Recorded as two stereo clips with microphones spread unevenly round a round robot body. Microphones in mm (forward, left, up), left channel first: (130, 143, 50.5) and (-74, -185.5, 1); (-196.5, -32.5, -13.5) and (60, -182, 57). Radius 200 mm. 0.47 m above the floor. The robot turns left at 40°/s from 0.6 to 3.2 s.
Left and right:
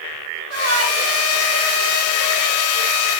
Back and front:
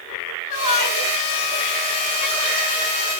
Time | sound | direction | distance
0.5 | a shout | straight behind | 5 m